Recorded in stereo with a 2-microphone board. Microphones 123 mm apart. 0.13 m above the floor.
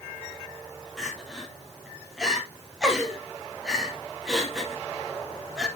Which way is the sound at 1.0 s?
5° right (ahead or behind).